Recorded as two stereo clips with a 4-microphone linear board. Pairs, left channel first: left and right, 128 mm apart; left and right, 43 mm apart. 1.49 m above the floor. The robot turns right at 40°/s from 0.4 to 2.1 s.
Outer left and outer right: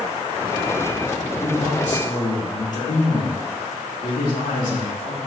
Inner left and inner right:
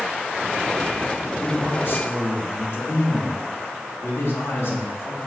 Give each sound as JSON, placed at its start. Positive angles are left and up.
{"t": 1.4, "sound": "a man speaking", "side_deg": 50, "distance_m": 2.5}